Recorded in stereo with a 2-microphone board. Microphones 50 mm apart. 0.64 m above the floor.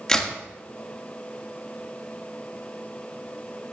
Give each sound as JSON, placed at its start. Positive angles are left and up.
{"t": 0.1, "sound": "a crack", "side_deg": 10, "distance_m": 1.6}